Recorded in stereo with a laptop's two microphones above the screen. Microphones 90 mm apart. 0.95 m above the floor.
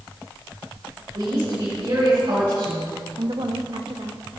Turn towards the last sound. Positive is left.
turn(degrees=-60)  # may be behind; listen again after turning